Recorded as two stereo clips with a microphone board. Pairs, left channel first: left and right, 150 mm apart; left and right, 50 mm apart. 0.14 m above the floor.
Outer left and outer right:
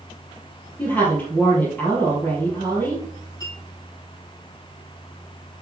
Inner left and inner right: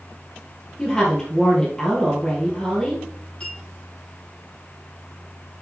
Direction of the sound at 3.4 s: 25° left (ahead or behind).